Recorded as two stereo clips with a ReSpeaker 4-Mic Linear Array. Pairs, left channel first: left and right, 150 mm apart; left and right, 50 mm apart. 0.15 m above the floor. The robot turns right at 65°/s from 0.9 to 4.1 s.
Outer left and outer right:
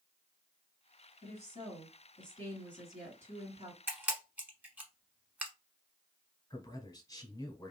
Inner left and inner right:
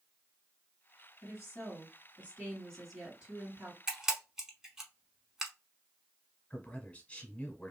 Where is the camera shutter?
15° right (ahead or behind), 0.9 m; by 5.5 s 10° right (ahead or behind), 0.9 m.